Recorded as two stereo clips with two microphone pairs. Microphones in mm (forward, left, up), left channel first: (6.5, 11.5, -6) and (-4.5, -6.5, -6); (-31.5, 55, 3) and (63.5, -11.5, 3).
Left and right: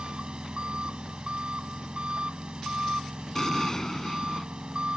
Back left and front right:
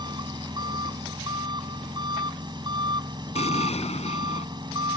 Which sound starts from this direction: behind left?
An explosion, at 3.4 s.